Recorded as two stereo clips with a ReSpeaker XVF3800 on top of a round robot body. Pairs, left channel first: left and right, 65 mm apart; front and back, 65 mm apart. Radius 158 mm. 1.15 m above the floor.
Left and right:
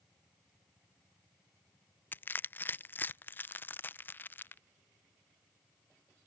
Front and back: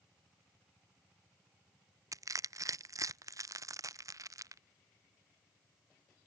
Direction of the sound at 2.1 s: 150° left.